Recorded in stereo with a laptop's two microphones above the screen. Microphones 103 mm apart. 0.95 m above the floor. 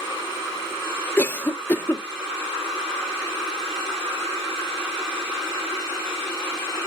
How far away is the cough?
About 0.5 m.